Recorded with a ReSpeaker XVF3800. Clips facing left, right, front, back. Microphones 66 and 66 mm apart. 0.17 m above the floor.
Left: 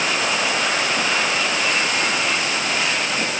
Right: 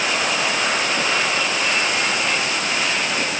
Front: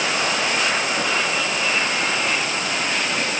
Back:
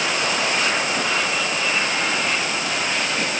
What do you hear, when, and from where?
Only background noise.